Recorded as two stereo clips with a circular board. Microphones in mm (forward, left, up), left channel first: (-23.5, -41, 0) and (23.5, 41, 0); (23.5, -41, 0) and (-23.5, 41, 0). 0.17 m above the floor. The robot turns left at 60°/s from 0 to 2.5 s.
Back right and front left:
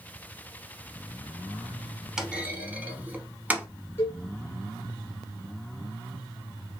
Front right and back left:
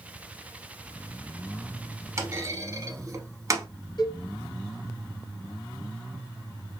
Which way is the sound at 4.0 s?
65° right.